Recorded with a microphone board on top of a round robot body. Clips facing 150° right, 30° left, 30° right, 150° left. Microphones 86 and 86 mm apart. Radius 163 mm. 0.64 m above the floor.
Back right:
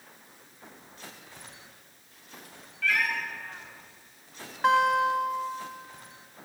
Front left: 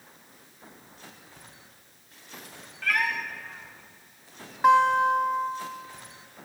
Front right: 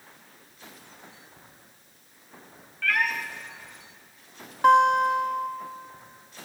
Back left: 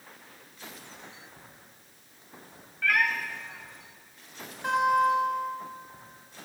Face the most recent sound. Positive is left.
turn(degrees=-50)